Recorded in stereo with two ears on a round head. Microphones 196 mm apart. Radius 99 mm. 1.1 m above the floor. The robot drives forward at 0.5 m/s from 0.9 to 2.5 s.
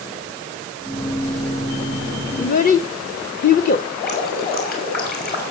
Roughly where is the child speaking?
Left.